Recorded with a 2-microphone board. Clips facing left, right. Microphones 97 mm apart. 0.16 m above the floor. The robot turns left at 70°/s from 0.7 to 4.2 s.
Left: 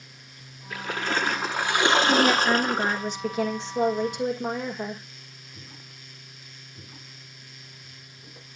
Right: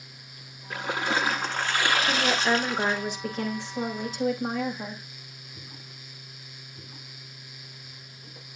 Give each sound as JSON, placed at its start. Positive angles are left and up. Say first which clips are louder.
{"t": 0.7, "sound": "a splash", "louder": "right 1 dB", "azimuth_deg": -135, "distance_m": 0.9}
{"t": 2.1, "sound": "a woman speaking", "louder": "left 4 dB", "azimuth_deg": -95, "distance_m": 6.5}